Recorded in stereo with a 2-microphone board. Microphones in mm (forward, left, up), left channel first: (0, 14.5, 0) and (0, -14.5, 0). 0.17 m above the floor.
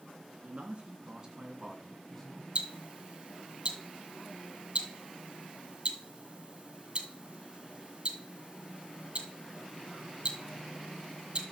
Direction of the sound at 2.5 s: 45° right (ahead or behind).